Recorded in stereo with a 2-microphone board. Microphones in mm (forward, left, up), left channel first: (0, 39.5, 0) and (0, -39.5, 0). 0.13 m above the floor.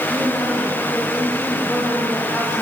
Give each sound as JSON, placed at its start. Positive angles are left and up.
{"t": 0.1, "sound": "a woman speaking", "side_deg": 15, "distance_m": 8.0}